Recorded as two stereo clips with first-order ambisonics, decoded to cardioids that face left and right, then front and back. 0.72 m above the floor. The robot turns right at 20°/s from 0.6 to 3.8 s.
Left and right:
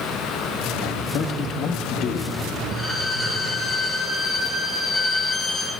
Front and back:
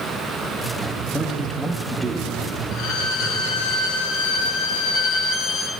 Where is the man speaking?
80° left, 0.6 m; by 2.5 s 105° left, 0.6 m.